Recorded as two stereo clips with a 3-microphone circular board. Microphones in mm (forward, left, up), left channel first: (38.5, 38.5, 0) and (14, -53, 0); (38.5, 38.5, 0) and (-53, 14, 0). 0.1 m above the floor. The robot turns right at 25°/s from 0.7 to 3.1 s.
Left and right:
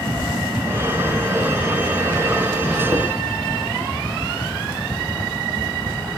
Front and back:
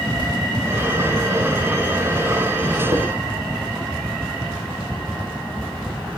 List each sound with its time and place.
2.9 s dishes clattering: 165° right, 8.5 m; by 3.0 s 160° right, 8.5 m